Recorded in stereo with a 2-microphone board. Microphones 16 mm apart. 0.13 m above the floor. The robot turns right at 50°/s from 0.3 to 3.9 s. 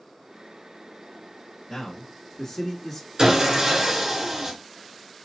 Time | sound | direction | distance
1.7 | a man speaking | 25° left (ahead or behind) | 1.2 m
3.2 | sawing | 60° right | 1.3 m